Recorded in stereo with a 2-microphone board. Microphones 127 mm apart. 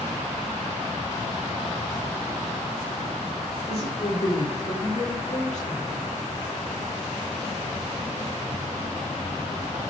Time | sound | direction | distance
3.7 | a woman speaking | 50° left (ahead or behind) | 5.5 m